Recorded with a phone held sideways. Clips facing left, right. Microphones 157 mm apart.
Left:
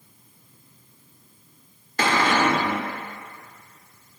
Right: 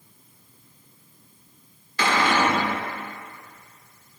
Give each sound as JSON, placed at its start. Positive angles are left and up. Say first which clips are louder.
{"t": 2.0, "sound": "a cupboard door", "louder": "left 1 dB", "side_deg": 45, "distance_m": 1.6}